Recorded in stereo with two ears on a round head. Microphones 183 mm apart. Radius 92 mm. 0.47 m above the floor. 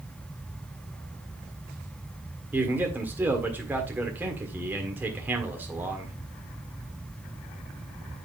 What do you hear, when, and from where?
2.5 s a man speaking: 10° right (ahead or behind), 1.5 m